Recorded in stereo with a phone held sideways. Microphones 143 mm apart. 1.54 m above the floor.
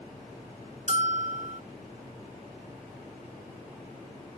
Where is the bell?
50° right (ahead or behind).